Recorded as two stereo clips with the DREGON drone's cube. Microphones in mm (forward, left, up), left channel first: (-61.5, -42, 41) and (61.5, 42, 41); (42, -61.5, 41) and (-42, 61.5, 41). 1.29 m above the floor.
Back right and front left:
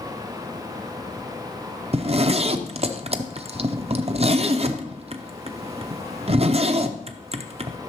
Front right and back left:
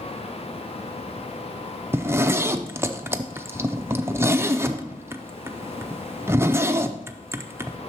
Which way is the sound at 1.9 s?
55° left.